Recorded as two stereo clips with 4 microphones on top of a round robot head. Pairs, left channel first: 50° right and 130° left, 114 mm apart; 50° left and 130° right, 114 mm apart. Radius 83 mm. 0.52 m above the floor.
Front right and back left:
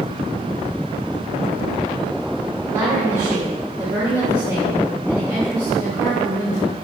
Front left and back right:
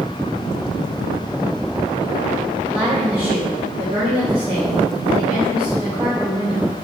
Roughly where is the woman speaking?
Behind.